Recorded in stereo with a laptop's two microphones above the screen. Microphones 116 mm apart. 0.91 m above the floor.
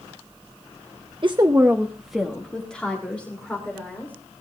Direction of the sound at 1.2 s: 50° right (ahead or behind).